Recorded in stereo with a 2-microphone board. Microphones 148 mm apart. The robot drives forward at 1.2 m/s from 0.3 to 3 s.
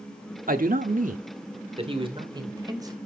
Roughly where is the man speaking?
Right.